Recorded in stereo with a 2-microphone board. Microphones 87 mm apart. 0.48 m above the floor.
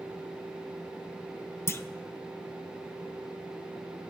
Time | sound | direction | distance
1.7 | a clunk | 30° left (ahead or behind) | 0.6 m